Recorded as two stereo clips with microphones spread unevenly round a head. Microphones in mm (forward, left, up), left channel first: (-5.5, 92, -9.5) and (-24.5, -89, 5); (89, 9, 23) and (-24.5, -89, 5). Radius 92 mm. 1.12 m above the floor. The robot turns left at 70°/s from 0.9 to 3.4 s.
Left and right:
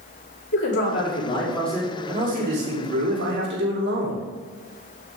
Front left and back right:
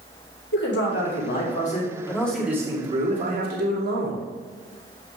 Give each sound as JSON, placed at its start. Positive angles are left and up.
{"t": 0.5, "sound": "a man speaking", "azimuth_deg": 50, "distance_m": 2.5}